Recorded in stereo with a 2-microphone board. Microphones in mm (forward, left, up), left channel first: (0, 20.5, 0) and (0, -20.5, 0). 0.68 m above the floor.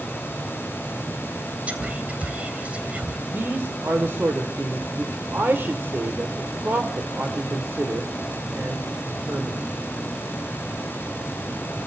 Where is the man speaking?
60° right (ahead or behind), 2 m.